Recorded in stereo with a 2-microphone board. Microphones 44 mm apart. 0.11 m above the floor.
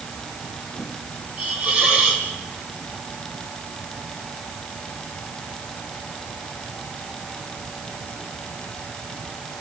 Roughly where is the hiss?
Right.